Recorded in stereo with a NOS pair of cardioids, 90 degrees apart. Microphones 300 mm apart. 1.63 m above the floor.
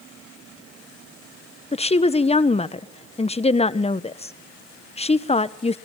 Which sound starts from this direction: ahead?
A woman speaking, at 1.7 s.